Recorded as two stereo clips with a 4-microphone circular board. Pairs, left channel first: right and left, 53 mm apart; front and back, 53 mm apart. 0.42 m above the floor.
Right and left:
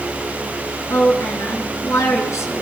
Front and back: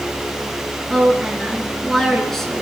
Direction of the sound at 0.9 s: 85° right.